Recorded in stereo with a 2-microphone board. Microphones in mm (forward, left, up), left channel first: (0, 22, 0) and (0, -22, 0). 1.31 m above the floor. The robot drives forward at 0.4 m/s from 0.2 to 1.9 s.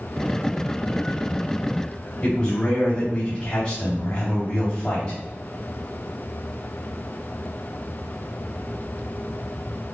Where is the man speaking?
30° left (ahead or behind), 1.7 m.